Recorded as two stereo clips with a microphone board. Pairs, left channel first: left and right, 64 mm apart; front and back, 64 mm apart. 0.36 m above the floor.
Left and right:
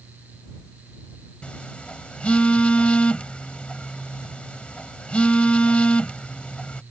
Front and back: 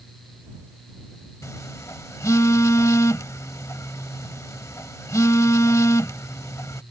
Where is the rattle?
I don't hear a rattle.